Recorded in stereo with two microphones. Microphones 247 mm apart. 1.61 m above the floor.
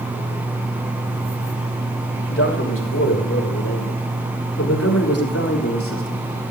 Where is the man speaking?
55° left (ahead or behind), 6 m; by 6.3 s 50° left (ahead or behind), 4 m.